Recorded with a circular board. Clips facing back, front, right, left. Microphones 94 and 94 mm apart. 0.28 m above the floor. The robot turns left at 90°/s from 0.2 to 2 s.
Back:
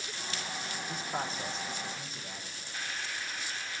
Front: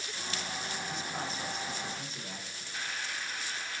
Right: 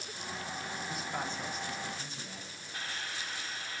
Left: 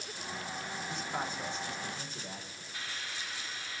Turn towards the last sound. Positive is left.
turn(degrees=-90)